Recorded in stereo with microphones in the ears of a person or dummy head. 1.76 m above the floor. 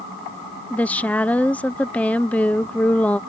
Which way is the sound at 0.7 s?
10° left (ahead or behind).